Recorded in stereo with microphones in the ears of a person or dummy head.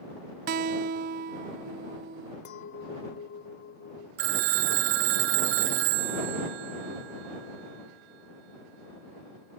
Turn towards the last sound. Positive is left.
turn(degrees=-50)  # may be behind; listen again after turning